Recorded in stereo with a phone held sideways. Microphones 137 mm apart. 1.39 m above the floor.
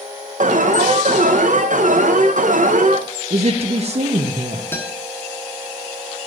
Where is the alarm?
70° right (ahead or behind), 0.8 m.